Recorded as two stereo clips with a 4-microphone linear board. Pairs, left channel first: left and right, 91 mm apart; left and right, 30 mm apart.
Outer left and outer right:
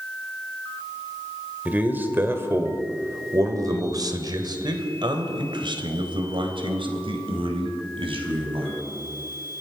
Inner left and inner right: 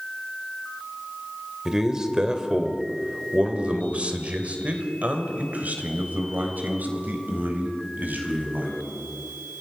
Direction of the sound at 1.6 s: 20° right (ahead or behind).